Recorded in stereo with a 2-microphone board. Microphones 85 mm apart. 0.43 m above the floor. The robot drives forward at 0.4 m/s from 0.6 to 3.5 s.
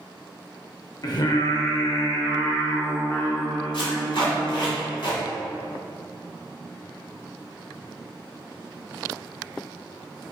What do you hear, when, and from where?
1.0 s singing: 50° left (ahead or behind), 0.6 m; by 4.7 s 25° left (ahead or behind), 1.1 m
3.7 s tape being pulled: 70° left (ahead or behind), 1.6 m